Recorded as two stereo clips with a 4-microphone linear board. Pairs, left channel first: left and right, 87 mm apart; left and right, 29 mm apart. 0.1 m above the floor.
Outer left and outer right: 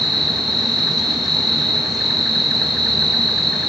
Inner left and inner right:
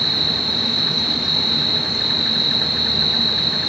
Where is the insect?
Centre (ahead or behind), 0.9 m.